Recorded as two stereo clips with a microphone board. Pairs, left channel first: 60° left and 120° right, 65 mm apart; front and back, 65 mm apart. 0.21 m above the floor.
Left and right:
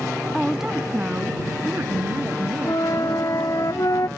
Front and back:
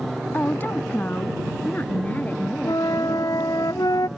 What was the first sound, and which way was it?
A woman speaking, 25° right.